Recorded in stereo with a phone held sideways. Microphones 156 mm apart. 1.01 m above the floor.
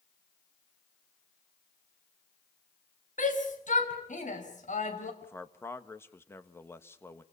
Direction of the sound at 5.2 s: 15° left (ahead or behind).